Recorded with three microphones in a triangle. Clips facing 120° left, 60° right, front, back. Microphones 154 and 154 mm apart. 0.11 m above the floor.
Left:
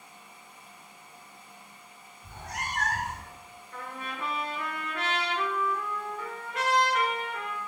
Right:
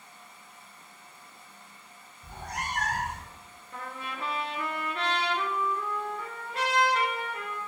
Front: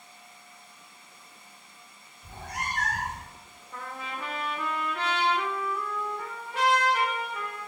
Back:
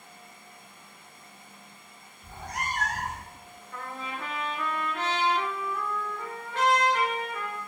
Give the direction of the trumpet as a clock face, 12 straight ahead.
2 o'clock.